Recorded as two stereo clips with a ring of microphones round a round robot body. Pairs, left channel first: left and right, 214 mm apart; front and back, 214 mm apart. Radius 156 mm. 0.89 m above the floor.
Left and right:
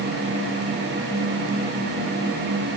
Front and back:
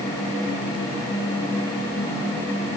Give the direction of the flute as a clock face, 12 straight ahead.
No flute in this recording.